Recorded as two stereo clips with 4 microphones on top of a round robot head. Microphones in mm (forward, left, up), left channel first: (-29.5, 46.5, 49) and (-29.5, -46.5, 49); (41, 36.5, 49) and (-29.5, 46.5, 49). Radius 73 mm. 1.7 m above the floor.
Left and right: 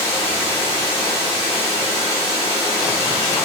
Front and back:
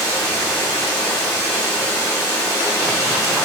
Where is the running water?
55° right, 1.5 m.